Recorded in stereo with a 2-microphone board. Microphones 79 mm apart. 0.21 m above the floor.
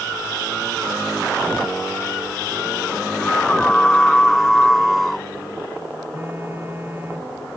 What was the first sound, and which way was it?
A scream, 10° left (ahead or behind).